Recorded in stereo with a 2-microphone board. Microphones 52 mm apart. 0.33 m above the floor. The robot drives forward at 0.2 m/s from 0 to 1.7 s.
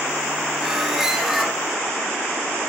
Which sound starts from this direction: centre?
A squeak, at 0.6 s.